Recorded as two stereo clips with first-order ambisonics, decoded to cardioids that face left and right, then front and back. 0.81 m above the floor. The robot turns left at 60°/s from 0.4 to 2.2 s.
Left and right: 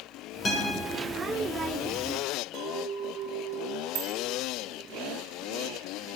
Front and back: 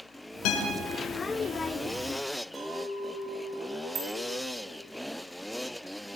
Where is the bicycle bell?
115° right, 4.5 m.